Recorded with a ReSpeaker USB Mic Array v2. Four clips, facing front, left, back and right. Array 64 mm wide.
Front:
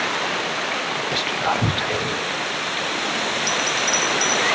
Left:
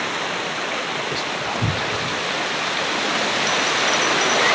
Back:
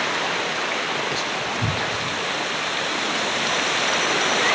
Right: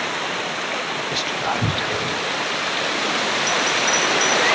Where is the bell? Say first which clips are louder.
Even, even; 175° left, 1.4 m.